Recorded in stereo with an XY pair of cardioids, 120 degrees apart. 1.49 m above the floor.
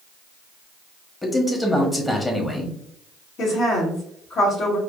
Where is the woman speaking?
55° left, 1.7 m.